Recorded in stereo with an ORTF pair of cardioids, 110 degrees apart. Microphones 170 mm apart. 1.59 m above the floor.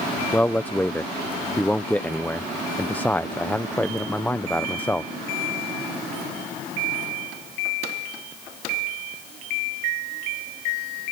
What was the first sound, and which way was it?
A man speaking, 10° left.